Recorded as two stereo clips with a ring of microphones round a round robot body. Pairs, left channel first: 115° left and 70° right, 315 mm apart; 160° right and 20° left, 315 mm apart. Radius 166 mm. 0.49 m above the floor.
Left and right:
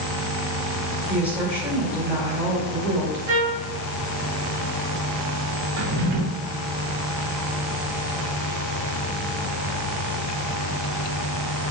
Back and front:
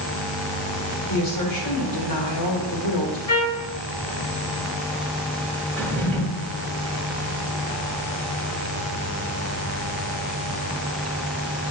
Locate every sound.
1.1 s a woman speaking: 155° right, 1.9 m
3.3 s a trumpet: 125° right, 2 m
5.8 s a drawer: 70° right, 1.3 m